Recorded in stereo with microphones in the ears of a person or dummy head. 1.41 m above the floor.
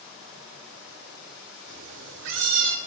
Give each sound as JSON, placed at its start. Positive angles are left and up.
{"t": 1.7, "sound": "a cat meowing", "side_deg": -75, "distance_m": 2.5}